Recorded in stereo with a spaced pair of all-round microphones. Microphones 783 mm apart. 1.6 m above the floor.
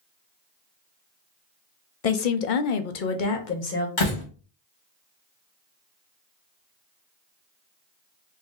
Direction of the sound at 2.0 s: 50° left (ahead or behind).